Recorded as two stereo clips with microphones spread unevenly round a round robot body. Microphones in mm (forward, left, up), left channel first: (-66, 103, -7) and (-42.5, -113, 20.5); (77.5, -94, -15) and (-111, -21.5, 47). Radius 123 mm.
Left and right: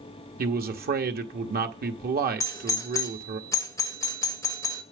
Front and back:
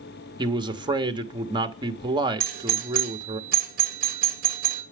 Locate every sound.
0.4 s a man speaking: 125° right, 1.2 m
2.4 s a doorbell: 140° left, 1.4 m